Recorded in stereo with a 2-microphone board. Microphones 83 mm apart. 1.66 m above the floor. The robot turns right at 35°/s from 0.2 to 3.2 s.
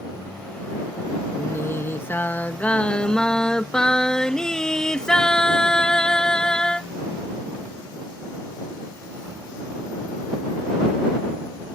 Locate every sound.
1.4 s singing: 100° left; by 6.9 s 165° left